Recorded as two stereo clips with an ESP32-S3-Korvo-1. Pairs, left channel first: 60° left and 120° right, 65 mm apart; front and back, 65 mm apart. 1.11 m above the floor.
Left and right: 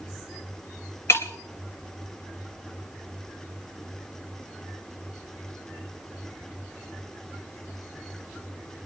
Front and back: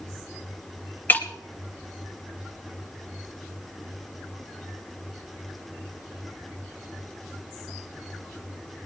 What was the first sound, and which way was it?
Breaking glass, 45° left.